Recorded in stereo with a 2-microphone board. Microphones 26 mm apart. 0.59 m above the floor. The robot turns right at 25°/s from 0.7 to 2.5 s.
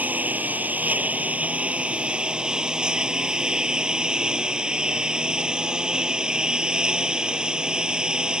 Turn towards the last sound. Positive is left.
turn(degrees=-30)